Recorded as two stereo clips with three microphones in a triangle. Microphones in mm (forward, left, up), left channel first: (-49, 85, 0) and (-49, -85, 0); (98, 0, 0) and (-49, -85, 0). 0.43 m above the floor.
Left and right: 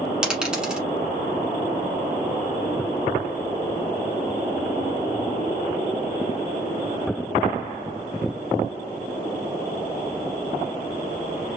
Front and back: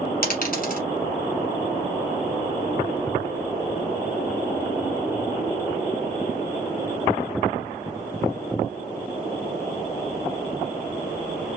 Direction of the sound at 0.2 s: 5° right.